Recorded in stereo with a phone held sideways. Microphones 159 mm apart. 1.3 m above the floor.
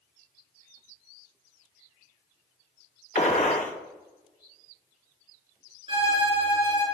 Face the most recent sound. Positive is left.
turn(degrees=-35)  # may be behind; listen again after turning